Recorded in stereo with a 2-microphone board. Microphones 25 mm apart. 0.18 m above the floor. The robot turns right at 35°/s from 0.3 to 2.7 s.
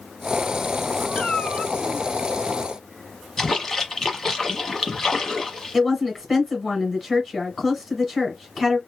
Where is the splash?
20° left (ahead or behind), 1.1 m.